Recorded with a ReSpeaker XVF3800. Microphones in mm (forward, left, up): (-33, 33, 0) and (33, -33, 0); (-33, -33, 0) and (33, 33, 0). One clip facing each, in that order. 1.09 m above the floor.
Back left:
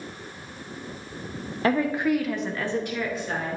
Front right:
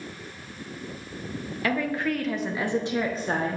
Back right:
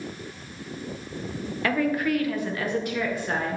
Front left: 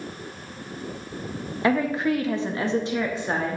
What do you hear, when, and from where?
1.6 s a woman speaking: 100° left, 0.8 m; by 3.6 s 20° right, 1.0 m